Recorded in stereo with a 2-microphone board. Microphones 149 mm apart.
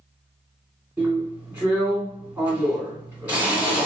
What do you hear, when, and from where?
1.0 s a drill: 15° right (ahead or behind), 1.7 m